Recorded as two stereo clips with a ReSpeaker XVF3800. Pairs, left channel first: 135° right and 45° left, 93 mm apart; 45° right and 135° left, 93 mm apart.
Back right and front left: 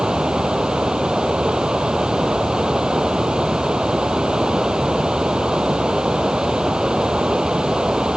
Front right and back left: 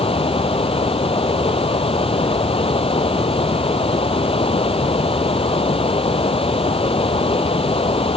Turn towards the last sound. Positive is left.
turn(degrees=-35)